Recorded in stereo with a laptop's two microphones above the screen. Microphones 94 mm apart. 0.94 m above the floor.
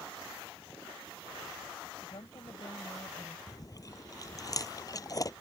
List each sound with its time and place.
2.0 s a woman speaking: 55° left (ahead or behind); by 3.4 s 40° left (ahead or behind)
3.5 s chewing: 35° left (ahead or behind)